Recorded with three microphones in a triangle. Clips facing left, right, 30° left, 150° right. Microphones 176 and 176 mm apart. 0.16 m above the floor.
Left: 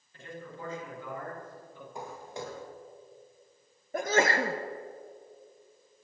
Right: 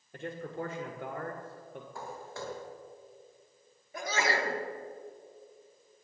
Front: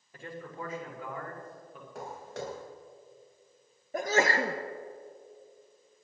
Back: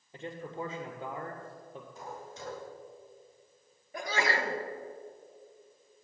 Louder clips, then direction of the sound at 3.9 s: Left 5 dB, front 5 dB; 65° left.